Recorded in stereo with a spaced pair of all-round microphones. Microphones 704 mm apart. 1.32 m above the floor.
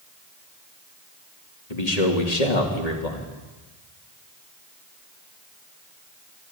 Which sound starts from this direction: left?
A man speaking, at 1.7 s.